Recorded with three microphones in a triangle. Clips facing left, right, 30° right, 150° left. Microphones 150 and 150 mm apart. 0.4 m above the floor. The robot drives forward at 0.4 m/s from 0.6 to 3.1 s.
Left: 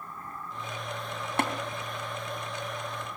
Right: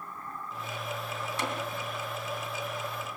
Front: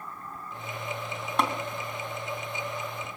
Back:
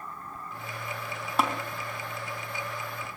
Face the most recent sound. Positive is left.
turn(degrees=80)